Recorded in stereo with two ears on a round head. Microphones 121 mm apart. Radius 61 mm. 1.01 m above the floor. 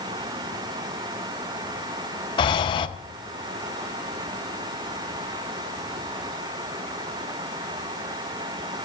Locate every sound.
2.4 s breathing: 35° left (ahead or behind), 0.6 m